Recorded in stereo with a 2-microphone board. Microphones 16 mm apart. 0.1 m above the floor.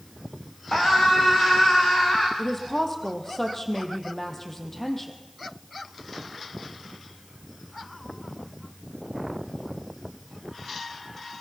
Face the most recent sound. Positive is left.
turn(degrees=15)  # may be behind; listen again after turning